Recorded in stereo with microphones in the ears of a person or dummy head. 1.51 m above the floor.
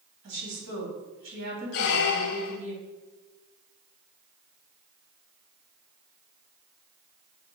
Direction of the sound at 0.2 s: 60° right (ahead or behind).